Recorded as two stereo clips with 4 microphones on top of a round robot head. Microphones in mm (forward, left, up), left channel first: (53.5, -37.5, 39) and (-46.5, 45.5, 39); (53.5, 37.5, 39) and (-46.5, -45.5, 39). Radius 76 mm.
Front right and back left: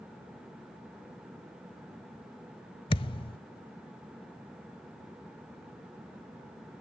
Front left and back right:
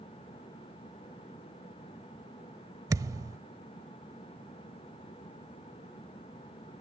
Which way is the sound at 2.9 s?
85° right.